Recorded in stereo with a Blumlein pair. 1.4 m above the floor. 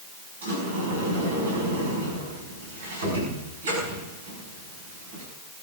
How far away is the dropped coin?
No dropped coin in this recording.